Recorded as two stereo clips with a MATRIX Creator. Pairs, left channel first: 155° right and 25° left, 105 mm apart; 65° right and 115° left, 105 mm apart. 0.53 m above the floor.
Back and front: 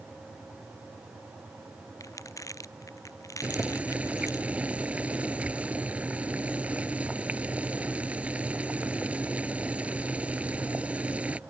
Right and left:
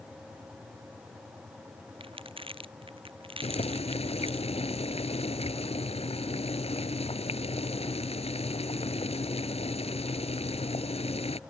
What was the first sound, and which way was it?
Crumpling, 145° left.